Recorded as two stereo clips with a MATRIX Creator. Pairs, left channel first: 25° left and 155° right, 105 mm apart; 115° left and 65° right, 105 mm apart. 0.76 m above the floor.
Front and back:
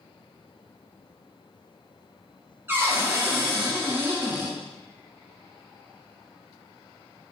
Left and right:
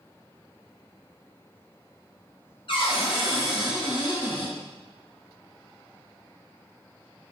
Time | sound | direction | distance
2.7 | a cupboard door | 135° left | 0.7 m